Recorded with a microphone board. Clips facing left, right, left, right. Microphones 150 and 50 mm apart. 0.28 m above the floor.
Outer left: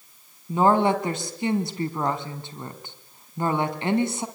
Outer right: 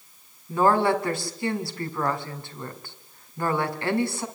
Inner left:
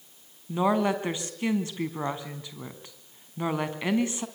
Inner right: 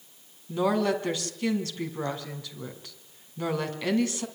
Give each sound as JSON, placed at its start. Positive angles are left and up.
{"t": 0.5, "sound": "a woman speaking", "side_deg": 20, "distance_m": 3.0}